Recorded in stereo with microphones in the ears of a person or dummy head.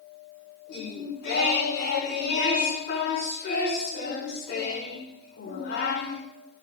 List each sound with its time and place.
0.7 s singing: 55° left (ahead or behind), 5 m